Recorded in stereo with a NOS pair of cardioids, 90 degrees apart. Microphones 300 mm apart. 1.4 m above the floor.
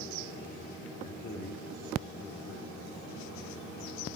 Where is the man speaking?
35° left, 1.0 m.